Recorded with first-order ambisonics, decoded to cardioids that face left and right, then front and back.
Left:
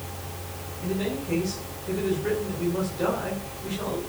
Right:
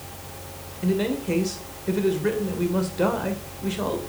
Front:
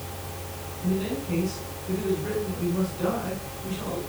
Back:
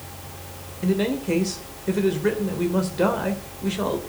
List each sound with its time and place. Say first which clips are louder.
0.8 s a man speaking: right 5 dB, back 6 dB; 150° right, 2 m